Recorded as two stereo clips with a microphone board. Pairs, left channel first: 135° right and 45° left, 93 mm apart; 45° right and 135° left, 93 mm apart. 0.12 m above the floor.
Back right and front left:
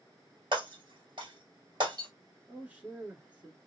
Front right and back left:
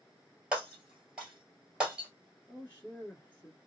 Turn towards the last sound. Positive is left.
turn(degrees=-10)